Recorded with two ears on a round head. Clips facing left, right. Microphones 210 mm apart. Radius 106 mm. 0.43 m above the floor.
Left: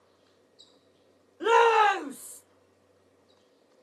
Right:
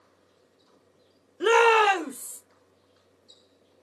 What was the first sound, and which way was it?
A shout, 35° right (ahead or behind).